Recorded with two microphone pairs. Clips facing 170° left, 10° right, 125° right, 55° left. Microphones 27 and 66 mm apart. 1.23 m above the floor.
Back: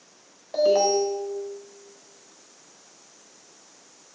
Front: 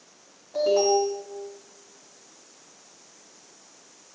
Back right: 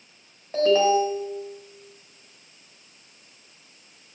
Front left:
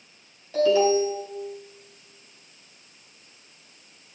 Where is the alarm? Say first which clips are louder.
Back 1 dB, back right 1 dB; 175° right, 5.5 m.